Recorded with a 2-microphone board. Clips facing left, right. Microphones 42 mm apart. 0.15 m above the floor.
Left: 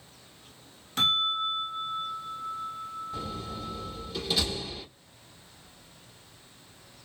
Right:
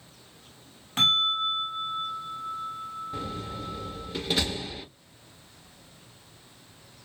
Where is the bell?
35° right (ahead or behind), 2 m.